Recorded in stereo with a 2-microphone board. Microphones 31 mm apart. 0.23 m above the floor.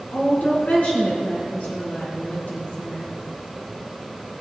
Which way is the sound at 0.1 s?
60° left (ahead or behind).